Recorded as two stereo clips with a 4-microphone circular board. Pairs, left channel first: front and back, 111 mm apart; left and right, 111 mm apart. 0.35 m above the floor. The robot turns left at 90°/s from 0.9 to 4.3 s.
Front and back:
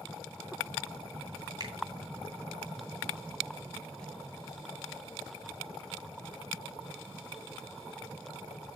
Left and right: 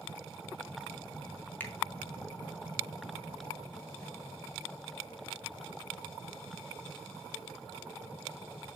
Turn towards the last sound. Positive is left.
turn(degrees=-90)